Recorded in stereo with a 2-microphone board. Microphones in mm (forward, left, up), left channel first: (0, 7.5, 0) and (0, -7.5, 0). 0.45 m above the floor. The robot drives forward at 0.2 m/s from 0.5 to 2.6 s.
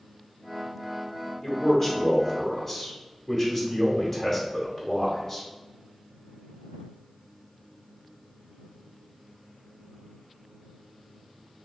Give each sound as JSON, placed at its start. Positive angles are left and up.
{"t": 1.4, "sound": "a man speaking", "side_deg": 25, "distance_m": 1.2}